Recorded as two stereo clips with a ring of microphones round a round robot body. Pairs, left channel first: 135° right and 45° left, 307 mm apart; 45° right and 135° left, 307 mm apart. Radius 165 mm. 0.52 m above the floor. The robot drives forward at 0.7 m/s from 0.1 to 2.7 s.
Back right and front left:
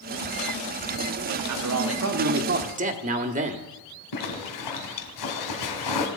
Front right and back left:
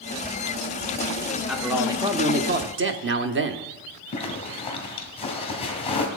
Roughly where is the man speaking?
Ahead left.